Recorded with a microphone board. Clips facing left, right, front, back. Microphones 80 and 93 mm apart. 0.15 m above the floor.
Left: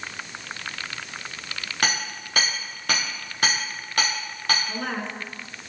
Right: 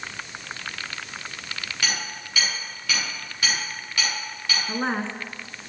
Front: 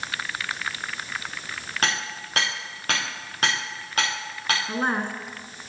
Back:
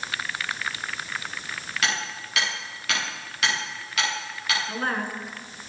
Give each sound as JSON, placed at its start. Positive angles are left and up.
{"t": 1.8, "sound": "hammering", "azimuth_deg": 50, "distance_m": 8.5}
{"t": 4.7, "sound": "a woman speaking", "azimuth_deg": -55, "distance_m": 1.9}